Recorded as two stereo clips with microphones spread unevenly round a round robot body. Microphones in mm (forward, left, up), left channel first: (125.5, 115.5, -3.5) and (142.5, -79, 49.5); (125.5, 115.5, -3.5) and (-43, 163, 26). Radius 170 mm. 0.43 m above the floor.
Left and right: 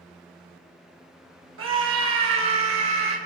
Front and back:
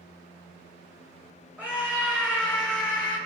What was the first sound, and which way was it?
A scream, 105° right.